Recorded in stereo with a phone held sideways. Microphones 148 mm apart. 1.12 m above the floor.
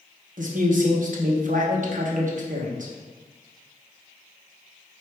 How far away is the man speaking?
About 0.8 m.